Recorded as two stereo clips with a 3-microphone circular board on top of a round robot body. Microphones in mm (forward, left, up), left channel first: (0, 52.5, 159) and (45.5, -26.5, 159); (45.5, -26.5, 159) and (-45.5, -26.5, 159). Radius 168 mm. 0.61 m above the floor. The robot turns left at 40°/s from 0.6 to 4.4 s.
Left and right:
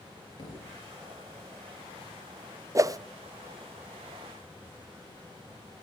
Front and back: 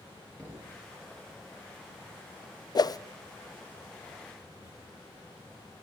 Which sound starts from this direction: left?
A thud, at 0.4 s.